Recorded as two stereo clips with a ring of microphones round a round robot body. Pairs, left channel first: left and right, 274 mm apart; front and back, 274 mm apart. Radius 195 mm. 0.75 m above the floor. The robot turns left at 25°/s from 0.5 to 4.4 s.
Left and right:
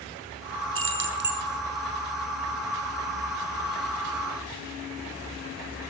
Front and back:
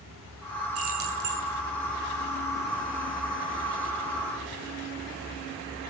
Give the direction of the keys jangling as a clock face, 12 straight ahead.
4 o'clock.